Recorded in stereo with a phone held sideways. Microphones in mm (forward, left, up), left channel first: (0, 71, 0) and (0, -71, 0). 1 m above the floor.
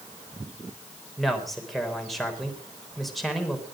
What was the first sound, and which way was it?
A man speaking, centre (ahead or behind).